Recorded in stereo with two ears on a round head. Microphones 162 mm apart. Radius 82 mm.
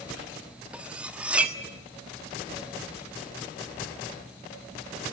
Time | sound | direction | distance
0.7 | cutlery clinking | 5° right (ahead or behind) | 1.4 m